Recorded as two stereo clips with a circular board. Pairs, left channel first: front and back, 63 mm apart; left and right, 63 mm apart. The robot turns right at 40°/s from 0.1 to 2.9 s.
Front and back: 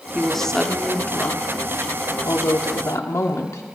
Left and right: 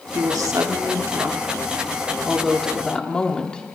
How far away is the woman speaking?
About 1.4 m.